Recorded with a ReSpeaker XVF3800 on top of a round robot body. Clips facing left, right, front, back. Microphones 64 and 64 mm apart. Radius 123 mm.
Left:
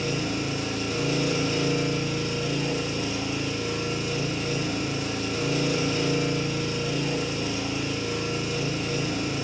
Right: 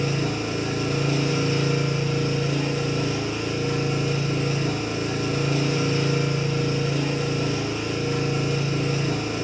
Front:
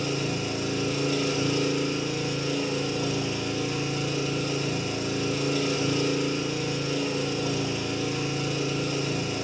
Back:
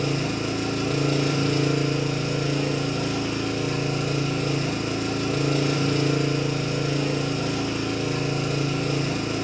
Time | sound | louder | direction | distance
0.0 | an engine running | right 2 dB, back 3 dB | 140° right | 0.9 m